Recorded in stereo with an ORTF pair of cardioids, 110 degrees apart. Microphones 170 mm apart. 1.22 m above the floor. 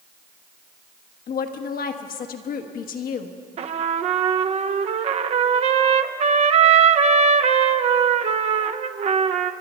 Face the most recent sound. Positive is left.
turn(degrees=-40)